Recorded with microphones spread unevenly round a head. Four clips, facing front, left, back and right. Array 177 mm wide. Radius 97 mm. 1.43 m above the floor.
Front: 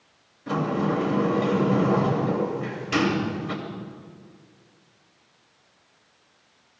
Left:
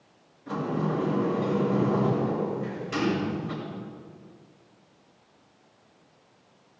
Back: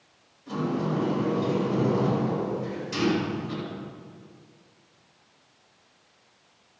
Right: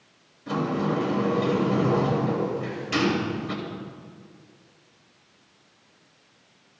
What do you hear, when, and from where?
0.5 s a sliding door: 30° right, 3.5 m